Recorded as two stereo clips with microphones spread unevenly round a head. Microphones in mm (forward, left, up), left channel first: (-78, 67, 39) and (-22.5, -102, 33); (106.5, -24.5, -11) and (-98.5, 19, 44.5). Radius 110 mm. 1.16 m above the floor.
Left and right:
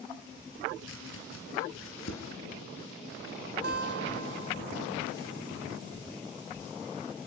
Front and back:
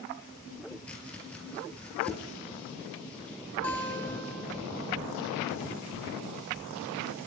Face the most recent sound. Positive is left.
turn(degrees=-100)